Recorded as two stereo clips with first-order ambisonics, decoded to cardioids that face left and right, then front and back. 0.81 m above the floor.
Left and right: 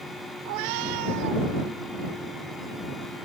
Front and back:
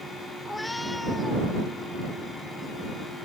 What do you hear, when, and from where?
0.5 s a cat meowing: 85° right